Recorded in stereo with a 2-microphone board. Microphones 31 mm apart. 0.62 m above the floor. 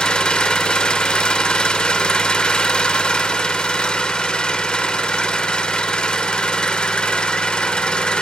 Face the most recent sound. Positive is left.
turn(degrees=35)  # may be behind; listen again after turning